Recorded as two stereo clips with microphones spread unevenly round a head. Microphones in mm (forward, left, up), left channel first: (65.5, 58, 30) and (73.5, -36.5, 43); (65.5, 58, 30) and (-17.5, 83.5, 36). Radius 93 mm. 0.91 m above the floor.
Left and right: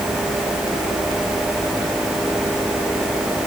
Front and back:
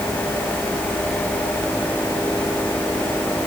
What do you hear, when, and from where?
Only background noise.